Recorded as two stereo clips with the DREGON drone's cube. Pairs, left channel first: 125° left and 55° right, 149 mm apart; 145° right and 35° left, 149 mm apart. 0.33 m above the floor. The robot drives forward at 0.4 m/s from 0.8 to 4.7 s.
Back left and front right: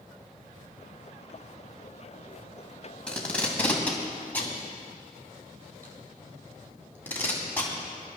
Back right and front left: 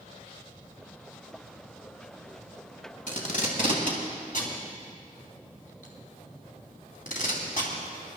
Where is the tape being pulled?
155° right, 2.5 m; by 7.7 s 160° right, 3 m.